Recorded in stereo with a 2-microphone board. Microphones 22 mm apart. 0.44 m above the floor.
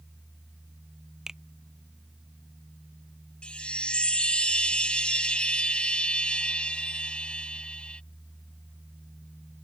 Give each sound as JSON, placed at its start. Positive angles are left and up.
{"t": 1.3, "sound": "a finger snap", "side_deg": -25}
{"t": 3.4, "sound": "a chime", "side_deg": 50}